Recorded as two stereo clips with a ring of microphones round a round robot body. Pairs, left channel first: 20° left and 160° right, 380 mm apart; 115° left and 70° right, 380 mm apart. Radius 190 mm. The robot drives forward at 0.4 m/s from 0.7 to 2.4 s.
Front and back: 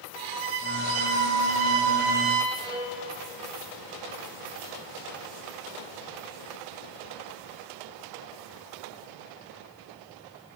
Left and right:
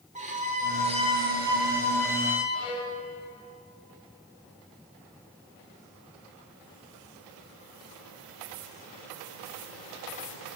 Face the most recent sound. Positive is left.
turn(degrees=125)